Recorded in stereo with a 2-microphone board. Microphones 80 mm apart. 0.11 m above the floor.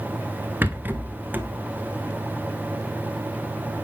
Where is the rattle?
25° right (ahead or behind), 0.8 m.